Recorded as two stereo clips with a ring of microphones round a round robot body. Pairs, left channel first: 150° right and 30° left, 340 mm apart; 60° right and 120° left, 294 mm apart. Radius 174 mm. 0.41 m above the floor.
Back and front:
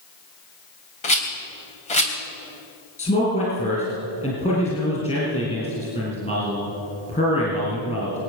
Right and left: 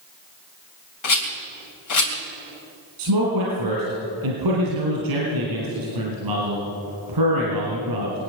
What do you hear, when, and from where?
1.0 s a rattle: 80° right, 3 m
3.0 s a man speaking: 140° left, 4 m